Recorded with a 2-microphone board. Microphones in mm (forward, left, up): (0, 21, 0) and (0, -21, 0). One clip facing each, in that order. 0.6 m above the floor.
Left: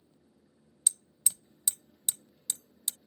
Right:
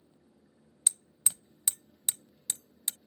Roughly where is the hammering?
Right.